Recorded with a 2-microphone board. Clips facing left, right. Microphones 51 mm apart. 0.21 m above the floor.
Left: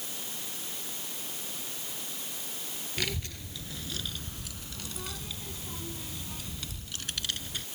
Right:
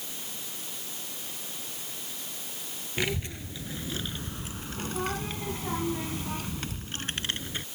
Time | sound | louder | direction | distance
3.0 | a child speaking | right 5 dB | 20° right (ahead or behind) | ?